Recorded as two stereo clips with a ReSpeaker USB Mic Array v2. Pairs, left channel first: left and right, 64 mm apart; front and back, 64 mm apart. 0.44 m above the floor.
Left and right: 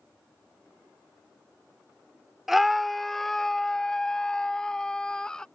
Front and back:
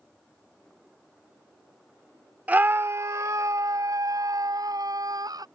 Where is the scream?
170° right; by 5.5 s 170° left.